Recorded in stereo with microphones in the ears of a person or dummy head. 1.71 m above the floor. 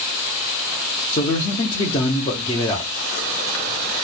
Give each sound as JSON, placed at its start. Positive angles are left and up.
{"t": 1.1, "sound": "a man speaking", "side_deg": 30, "distance_m": 0.6}